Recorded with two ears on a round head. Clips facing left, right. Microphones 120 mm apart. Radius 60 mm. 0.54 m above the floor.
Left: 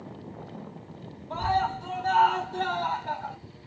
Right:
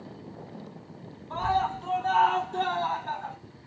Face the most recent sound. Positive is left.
turn(degrees=15)  # may be behind; listen again after turning